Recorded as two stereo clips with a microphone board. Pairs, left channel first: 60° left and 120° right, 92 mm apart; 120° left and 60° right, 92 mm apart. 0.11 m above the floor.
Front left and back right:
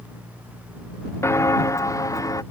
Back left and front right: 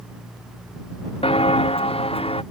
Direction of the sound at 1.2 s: 120° left.